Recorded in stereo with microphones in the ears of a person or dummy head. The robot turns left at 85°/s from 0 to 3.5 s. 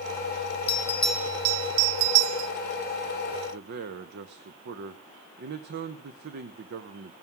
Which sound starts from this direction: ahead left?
A bell, at 0.7 s.